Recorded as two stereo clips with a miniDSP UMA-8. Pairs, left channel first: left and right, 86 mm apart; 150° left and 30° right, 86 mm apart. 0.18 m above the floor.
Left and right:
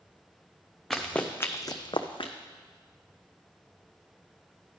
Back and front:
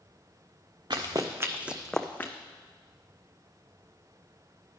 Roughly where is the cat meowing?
No cat meowing in this recording.